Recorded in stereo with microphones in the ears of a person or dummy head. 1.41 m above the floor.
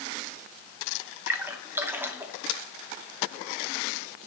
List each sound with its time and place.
1.3 s a splash: 10° right (ahead or behind), 0.6 m